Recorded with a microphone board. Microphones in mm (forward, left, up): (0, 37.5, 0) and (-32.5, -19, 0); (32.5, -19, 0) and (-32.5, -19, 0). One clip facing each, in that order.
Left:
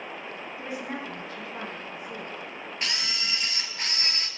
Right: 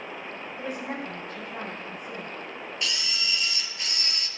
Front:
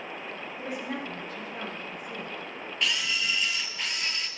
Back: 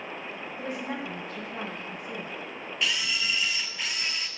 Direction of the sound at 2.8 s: 95° left.